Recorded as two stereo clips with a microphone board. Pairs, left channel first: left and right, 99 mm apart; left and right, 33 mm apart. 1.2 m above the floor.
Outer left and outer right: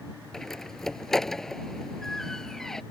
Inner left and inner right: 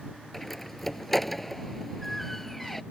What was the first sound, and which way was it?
A door slam, 5° left (ahead or behind).